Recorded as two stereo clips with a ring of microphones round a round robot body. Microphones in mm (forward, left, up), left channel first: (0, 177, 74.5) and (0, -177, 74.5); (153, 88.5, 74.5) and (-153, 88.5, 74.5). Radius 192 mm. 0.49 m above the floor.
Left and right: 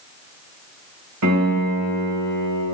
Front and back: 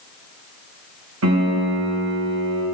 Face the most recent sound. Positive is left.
turn(degrees=-130)